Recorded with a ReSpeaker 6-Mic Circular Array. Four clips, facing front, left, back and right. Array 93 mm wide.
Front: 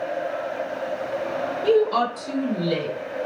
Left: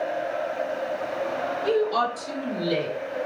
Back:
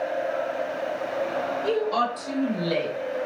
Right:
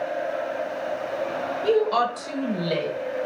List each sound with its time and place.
1.6 s a woman speaking: 40° right, 1.2 m; by 2.9 s 130° right, 1.8 m